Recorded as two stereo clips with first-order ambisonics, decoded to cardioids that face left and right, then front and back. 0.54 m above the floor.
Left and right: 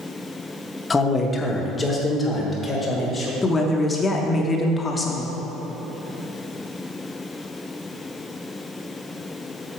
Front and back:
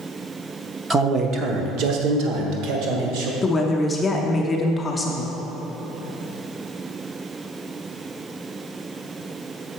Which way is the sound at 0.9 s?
145° left.